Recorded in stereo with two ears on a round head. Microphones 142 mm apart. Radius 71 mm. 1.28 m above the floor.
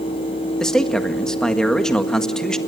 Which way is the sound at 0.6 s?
5° left (ahead or behind).